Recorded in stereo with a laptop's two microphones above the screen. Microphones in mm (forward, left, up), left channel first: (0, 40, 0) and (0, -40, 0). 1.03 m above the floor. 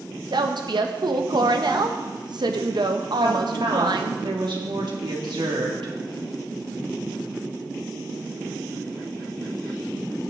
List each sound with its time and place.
0.3 s a woman speaking: 65° right (ahead or behind), 0.9 m
3.2 s a woman speaking: 75° right (ahead or behind), 1.9 m